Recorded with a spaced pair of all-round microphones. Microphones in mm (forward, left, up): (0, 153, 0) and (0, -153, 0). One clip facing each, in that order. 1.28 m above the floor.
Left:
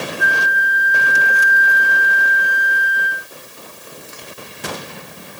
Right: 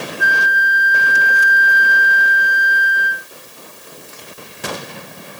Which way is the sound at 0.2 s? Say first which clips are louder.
Even; 35° right (ahead or behind).